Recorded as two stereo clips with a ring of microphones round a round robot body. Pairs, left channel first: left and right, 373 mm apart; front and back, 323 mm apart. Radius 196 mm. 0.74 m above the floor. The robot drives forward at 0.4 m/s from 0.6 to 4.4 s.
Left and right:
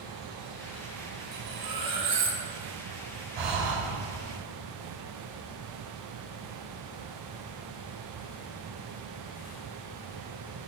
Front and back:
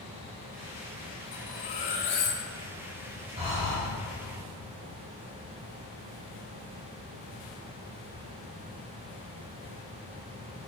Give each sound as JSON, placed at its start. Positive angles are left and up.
{"t": 1.3, "sound": "cutlery clinking", "azimuth_deg": -30, "distance_m": 3.5}
{"t": 3.4, "sound": "breathing", "azimuth_deg": -105, "distance_m": 3.5}